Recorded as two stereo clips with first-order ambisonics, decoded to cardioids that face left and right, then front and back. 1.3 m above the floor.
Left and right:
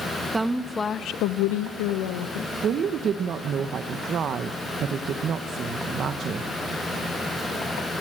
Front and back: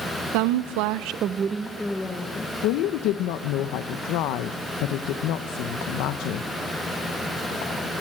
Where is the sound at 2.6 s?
30° right, 0.8 m.